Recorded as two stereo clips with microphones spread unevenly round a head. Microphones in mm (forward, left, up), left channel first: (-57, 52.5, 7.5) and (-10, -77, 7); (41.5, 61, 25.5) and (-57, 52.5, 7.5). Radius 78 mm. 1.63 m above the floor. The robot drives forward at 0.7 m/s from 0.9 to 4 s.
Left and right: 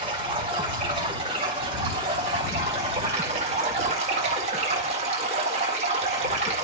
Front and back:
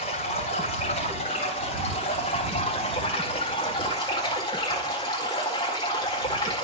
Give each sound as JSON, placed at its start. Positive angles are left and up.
{"t": 0.0, "sound": "running water", "azimuth_deg": -15, "distance_m": 3.5}